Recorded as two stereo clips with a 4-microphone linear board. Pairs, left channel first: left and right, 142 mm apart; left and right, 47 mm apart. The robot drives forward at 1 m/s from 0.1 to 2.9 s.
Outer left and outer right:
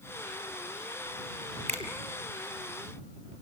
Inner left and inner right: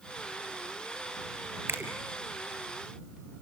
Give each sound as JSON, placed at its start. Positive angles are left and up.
{"t": 1.7, "sound": "a finger snap", "side_deg": -55, "distance_m": 3.0}